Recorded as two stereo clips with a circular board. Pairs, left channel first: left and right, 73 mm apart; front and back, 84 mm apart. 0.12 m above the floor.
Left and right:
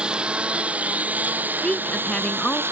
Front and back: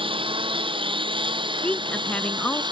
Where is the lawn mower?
170° right; by 2.7 s 150° right.